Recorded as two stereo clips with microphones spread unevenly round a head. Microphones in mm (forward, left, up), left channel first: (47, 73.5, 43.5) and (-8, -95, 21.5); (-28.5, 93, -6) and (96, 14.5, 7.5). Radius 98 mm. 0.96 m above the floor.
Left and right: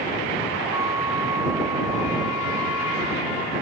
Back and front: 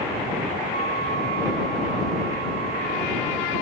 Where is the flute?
35° right.